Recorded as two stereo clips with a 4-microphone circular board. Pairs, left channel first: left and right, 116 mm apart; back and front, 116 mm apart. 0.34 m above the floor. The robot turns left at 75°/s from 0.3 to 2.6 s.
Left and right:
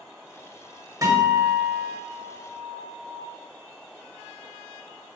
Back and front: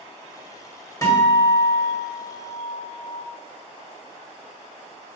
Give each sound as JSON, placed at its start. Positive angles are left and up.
{"t": 1.0, "sound": "a guitar", "azimuth_deg": -130, "distance_m": 1.7}